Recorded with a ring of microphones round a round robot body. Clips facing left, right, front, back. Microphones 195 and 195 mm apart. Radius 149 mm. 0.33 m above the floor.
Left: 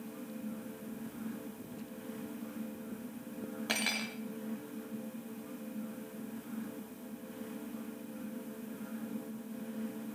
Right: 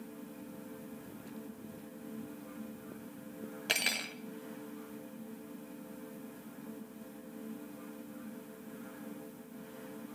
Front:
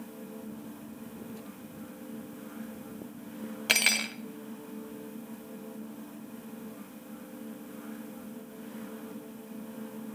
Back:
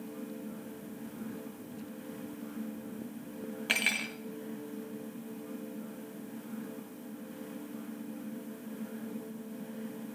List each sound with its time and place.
3.7 s cutlery clinking: 30° right, 0.8 m